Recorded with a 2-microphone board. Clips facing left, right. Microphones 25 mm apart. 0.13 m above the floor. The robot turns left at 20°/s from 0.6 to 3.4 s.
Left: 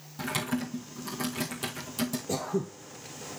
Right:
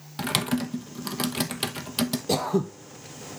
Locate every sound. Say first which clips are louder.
0.2 s typing on a keyboard: right 5 dB; 75° right (ahead or behind), 1.2 m; by 2.2 s 60° right (ahead or behind), 1.2 m
2.3 s throat clearing: right 6 dB; 75° right (ahead or behind), 0.7 m; by 2.7 s 80° right, 0.7 m